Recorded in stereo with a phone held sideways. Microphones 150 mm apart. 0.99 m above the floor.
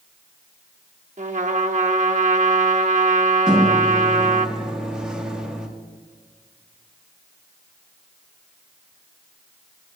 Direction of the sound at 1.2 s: 55° right (ahead or behind).